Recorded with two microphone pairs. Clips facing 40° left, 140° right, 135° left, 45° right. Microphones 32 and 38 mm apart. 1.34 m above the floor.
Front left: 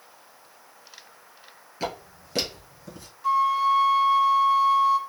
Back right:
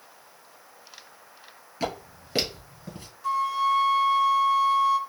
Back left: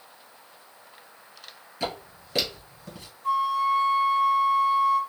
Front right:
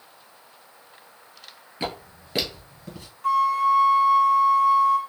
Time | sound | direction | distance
1.8 | footsteps | 55° right | 1.4 m
3.2 | a flute | 40° right | 0.6 m